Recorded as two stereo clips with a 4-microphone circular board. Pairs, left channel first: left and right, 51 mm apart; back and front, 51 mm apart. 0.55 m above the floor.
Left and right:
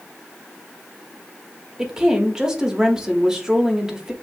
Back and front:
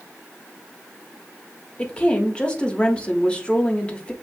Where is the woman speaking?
150° right, 1.2 m.